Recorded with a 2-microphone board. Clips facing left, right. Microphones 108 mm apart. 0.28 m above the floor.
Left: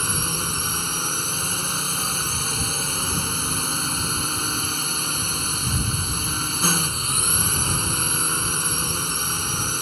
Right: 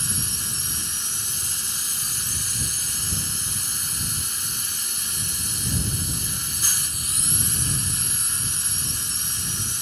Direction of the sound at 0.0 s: 60° left (ahead or behind).